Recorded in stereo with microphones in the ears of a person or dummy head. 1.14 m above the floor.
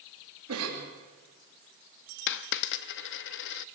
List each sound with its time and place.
0.5 s a cough: 80° right, 4 m
2.3 s a dropped coin: 60° left (ahead or behind), 0.8 m